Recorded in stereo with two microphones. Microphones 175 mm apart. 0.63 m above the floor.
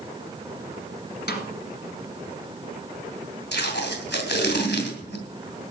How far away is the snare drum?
About 2.5 m.